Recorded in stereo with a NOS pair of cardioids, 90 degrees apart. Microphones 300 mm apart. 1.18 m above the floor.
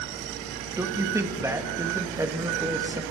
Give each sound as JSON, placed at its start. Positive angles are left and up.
{"t": 0.8, "sound": "a man speaking", "azimuth_deg": -10, "distance_m": 2.0}